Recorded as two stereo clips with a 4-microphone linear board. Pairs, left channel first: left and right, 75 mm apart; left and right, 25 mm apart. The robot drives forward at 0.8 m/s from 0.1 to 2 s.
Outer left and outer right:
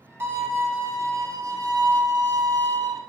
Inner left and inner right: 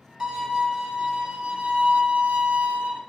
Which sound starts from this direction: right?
A violin, at 0.2 s.